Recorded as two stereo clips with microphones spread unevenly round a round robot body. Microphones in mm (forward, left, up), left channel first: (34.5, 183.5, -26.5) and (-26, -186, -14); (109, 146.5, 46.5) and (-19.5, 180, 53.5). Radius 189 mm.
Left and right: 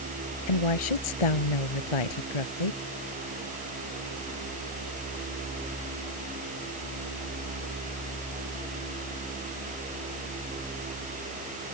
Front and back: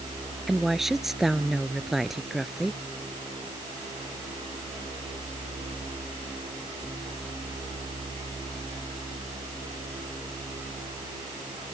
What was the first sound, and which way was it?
A woman speaking, 80° left.